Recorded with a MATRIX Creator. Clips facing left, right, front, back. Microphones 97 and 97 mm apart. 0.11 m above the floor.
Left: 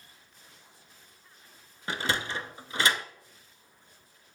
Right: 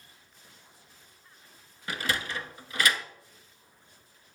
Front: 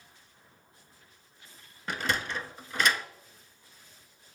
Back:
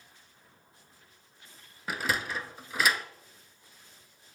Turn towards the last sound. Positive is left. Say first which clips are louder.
# left 1 dB, even
turn(degrees=100)